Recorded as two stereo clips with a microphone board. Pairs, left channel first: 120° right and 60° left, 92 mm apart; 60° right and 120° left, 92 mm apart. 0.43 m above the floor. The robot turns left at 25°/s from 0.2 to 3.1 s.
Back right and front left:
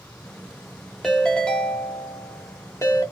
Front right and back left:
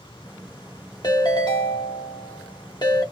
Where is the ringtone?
35° right, 1.0 m; by 3.0 s 85° right, 1.0 m.